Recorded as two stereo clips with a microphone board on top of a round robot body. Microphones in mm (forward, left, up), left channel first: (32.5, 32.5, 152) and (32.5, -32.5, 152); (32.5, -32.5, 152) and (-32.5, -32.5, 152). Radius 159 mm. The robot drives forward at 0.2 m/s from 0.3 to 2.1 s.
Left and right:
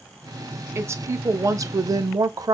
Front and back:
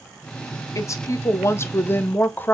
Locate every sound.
0.8 s a woman speaking: 40° right, 0.7 m; by 2.5 s 60° right, 0.5 m